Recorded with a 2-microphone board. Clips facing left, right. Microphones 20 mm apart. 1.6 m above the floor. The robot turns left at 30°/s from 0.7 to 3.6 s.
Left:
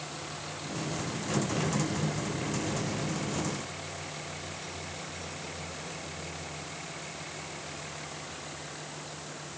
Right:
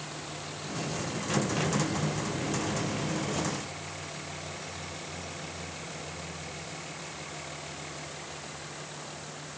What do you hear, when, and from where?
Only background noise.